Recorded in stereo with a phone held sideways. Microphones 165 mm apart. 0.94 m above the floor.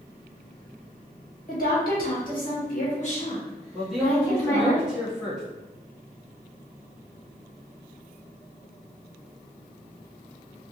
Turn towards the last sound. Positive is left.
turn(degrees=-5)  # may be behind; listen again after turning